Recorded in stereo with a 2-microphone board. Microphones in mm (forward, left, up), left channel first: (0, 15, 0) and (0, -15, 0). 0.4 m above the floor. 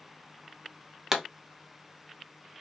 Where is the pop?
15° right (ahead or behind), 0.6 m.